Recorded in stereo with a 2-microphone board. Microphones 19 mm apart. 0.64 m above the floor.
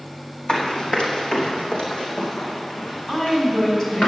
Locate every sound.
0.5 s running footsteps: 60° left (ahead or behind), 2 m; by 4.1 s 75° left (ahead or behind), 3.5 m
3.1 s a woman speaking: 25° left (ahead or behind), 4 m